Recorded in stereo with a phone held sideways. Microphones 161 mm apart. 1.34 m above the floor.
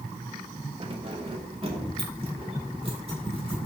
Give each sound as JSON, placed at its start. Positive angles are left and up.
{"t": 0.8, "sound": "keys jangling", "side_deg": -35, "distance_m": 1.7}